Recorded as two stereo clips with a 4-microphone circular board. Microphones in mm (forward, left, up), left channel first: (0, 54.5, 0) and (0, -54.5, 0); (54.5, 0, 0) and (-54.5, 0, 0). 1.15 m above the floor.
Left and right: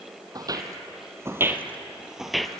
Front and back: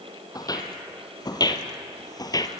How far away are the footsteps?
About 2.0 m.